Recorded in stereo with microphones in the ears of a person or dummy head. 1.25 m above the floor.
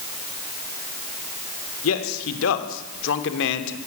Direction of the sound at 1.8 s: 85° left.